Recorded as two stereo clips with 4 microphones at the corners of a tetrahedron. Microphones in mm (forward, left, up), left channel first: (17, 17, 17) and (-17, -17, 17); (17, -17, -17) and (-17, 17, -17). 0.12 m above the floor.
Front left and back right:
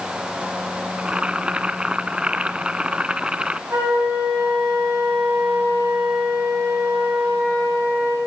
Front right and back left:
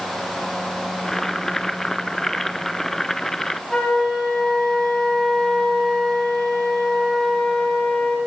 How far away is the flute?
About 9 m.